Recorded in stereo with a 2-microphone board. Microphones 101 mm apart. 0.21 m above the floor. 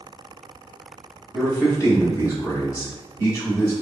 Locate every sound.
1.3 s a man speaking: 30° left (ahead or behind), 1.2 m